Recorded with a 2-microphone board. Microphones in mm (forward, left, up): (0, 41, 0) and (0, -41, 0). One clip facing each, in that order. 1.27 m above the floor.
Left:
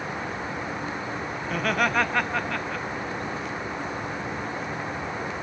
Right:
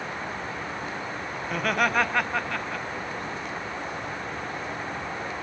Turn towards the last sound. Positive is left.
turn(degrees=0)  # may be behind; listen again after turning